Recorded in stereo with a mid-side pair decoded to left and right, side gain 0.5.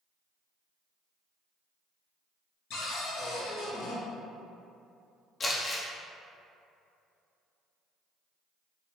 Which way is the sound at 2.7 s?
70° left.